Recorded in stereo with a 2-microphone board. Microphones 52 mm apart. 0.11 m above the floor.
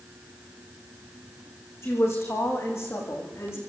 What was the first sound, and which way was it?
A woman speaking, 60° left (ahead or behind).